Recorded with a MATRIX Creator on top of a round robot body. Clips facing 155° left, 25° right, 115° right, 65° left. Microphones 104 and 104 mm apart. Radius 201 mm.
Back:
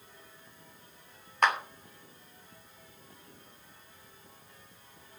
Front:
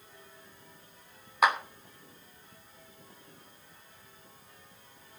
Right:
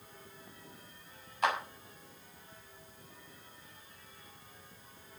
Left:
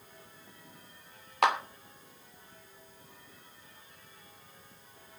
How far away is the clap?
About 3 m.